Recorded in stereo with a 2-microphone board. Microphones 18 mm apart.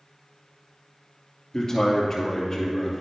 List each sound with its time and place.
1.5 s a man speaking: 30° left (ahead or behind), 2.5 m